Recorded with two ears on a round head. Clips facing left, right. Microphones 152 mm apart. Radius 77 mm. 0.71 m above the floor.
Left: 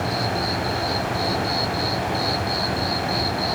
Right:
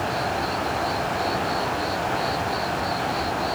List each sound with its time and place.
0.0 s an insect: 45° left (ahead or behind), 1.9 m